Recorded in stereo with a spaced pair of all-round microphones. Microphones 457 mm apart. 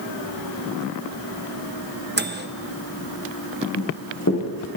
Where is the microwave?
25° right (ahead or behind), 0.7 m.